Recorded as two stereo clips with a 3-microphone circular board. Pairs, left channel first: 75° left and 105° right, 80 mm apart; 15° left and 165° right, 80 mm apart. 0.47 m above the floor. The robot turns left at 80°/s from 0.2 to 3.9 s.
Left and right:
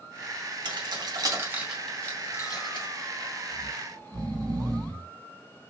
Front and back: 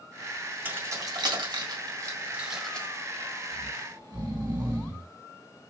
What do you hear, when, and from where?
0.7 s keys jangling: 100° right, 2.0 m; by 2.9 s 85° left, 2.0 m
3.5 s snoring: 110° right, 3 m; by 5.1 s 140° right, 3 m